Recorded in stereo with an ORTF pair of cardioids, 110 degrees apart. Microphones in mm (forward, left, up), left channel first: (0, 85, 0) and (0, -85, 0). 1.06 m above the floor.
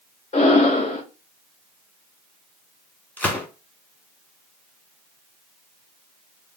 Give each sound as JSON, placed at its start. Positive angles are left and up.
{"t": 0.3, "sound": "breathing", "azimuth_deg": 45, "distance_m": 2.0}
{"t": 3.2, "sound": "a gunshot", "azimuth_deg": 10, "distance_m": 1.6}